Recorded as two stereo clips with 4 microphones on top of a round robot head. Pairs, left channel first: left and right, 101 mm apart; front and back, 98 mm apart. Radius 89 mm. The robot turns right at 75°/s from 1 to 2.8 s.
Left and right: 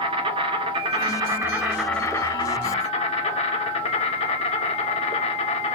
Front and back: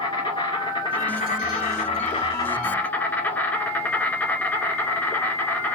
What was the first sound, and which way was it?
An insect, 60° right.